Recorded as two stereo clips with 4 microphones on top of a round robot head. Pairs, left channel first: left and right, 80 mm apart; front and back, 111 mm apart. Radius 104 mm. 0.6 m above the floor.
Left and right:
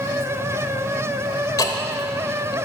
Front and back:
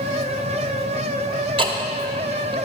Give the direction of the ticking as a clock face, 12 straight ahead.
7 o'clock.